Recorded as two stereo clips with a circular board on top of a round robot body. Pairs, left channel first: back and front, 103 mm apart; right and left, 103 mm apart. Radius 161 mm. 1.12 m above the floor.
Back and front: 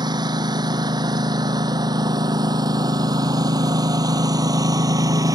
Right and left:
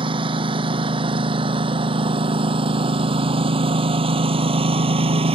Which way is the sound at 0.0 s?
50° left.